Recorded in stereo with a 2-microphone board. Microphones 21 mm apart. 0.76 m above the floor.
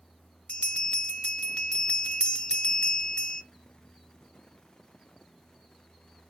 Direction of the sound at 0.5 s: 60° left (ahead or behind).